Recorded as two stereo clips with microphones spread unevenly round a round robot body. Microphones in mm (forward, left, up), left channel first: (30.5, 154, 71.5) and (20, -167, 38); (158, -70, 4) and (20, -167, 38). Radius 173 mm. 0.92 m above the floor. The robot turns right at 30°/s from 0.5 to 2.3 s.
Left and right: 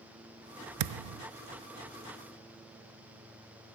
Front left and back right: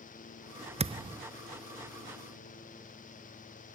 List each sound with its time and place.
0.8 s a thud: 90° right, 0.6 m; by 1.2 s 75° right, 0.6 m